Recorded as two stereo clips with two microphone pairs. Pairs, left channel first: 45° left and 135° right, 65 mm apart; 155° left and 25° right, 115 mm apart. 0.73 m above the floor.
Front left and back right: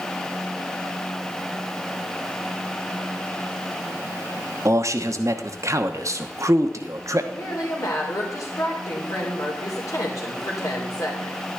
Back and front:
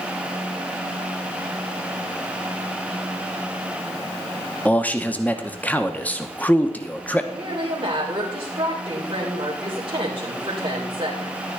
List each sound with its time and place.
4.7 s a man speaking: 135° right, 0.9 m
7.3 s a woman speaking: 25° left, 2.5 m